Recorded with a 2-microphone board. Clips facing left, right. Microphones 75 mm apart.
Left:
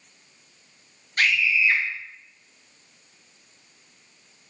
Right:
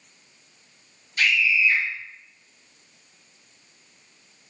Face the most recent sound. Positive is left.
turn(degrees=55)  # may be behind; listen again after turning